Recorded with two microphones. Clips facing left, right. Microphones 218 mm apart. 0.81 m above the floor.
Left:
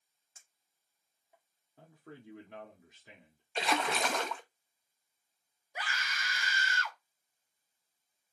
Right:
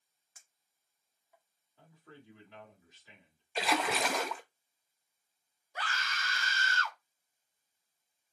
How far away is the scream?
About 0.8 m.